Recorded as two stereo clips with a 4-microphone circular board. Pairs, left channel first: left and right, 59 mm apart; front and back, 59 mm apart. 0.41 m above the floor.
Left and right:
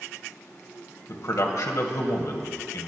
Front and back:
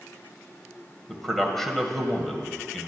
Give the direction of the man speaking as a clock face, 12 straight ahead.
9 o'clock.